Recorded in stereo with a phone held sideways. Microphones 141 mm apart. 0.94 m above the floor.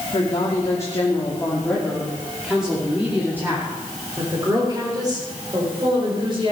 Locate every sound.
0.1 s a woman speaking: 35° left (ahead or behind), 2.5 m; by 6.5 s 35° right (ahead or behind), 4.5 m